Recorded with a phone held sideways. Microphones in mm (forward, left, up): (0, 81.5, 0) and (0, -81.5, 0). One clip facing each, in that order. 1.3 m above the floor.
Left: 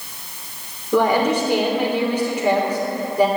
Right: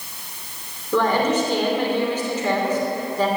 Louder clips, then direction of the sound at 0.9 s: Left 2 dB; 10° left (ahead or behind).